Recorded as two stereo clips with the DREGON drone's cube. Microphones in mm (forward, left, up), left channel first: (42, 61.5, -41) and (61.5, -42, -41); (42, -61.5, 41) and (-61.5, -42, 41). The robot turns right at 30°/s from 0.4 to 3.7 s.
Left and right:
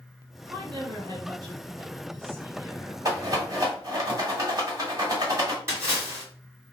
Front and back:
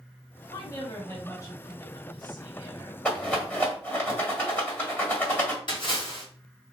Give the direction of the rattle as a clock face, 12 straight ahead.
3 o'clock.